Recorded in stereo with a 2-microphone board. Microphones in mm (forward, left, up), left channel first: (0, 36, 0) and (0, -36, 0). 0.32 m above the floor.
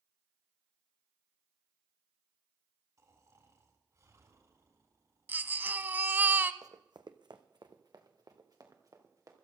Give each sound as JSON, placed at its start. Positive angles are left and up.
{"t": 3.0, "sound": "snoring", "side_deg": -50, "distance_m": 3.5}
{"t": 5.3, "sound": "a baby crying", "side_deg": -25, "distance_m": 0.6}
{"t": 6.6, "sound": "running footsteps", "side_deg": -60, "distance_m": 0.9}